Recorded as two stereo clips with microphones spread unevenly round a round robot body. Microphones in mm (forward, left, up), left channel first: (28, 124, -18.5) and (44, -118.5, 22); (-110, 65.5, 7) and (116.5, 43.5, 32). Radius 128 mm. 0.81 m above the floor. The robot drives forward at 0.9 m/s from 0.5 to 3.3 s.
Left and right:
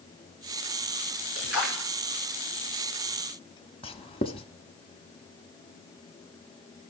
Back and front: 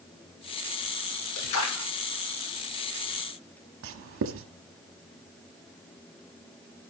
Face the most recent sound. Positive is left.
turn(degrees=30)